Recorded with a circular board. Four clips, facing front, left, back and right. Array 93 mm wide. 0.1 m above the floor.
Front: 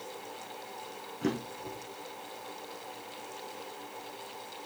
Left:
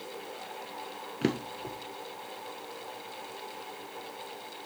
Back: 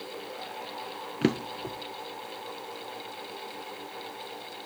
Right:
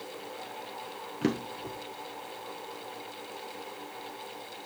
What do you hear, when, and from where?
1.2 s a drawer: 165° left, 1.2 m